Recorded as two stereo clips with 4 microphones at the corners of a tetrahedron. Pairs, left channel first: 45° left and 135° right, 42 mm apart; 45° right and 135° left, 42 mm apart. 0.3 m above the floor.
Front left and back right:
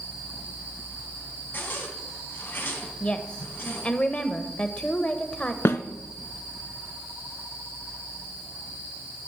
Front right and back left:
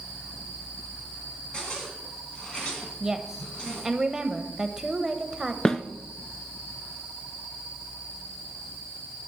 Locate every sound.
1.5 s a zipper: 20° left, 2.5 m
3.0 s a woman speaking: 70° left, 0.9 m
5.7 s a snare drum: 30° left, 0.6 m